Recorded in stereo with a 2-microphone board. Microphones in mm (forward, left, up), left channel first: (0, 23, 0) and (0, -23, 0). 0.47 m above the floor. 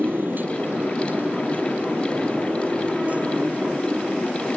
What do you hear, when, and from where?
0.0 s a motorcycle: 55° right (ahead or behind); by 4.6 s 30° right (ahead or behind)